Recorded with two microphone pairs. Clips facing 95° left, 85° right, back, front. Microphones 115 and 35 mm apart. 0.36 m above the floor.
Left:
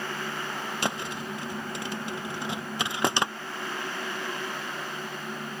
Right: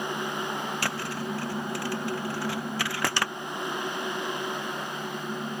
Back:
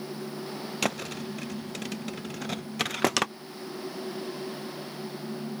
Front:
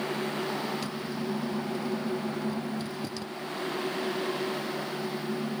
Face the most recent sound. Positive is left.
turn(degrees=165)